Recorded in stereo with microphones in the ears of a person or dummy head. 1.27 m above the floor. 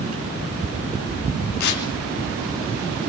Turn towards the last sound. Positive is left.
turn(degrees=60)  # may be behind; listen again after turning